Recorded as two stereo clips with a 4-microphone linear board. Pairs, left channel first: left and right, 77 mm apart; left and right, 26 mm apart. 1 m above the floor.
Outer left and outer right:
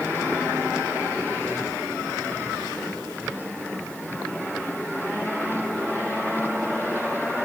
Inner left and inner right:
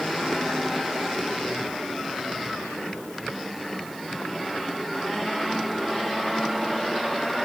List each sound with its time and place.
Only background noise.